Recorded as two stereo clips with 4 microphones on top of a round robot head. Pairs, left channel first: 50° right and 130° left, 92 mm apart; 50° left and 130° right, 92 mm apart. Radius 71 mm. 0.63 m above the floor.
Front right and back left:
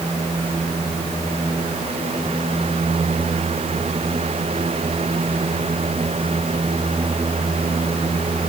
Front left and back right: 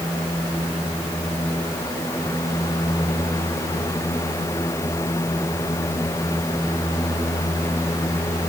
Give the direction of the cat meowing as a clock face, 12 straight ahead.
I don't hear a cat meowing.